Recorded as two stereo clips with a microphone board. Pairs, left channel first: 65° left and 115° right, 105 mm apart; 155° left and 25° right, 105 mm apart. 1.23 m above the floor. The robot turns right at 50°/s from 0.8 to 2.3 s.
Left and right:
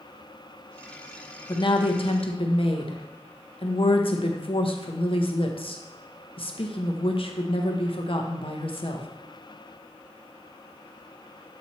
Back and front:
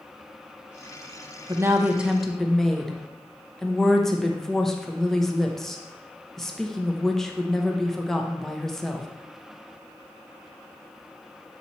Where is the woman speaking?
30° left, 0.9 m; by 9.1 s 70° left, 0.9 m.